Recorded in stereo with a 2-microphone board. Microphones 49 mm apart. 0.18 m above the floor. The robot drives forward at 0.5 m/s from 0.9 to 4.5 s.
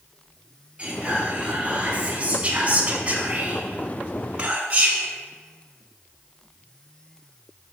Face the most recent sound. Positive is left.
turn(degrees=-25)  # may be behind; listen again after turning